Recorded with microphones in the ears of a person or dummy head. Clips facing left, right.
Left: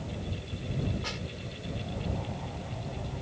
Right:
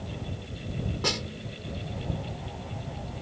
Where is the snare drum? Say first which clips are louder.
Right 6 dB; 55° right (ahead or behind).